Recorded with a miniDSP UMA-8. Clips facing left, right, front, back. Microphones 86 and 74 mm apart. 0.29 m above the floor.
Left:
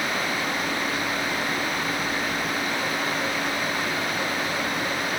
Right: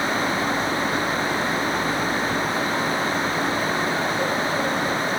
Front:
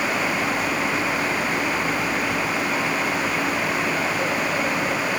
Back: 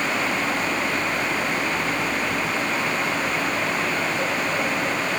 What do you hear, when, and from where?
Only background noise.